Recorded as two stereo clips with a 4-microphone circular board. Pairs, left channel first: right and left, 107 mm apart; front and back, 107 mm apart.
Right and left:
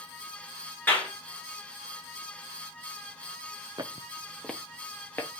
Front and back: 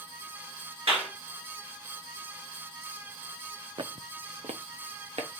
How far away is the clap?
About 2.5 m.